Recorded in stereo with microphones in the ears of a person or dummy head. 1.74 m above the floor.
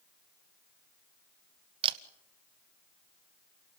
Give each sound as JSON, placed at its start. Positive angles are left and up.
{"t": 1.8, "sound": "a camera shutter", "side_deg": -30, "distance_m": 1.0}